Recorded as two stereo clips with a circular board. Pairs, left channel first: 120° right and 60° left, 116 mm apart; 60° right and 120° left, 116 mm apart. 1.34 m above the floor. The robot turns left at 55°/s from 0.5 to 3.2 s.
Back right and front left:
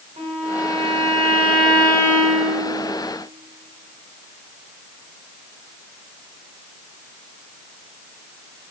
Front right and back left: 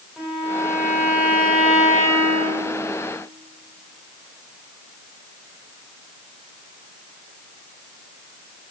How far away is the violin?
About 4 m.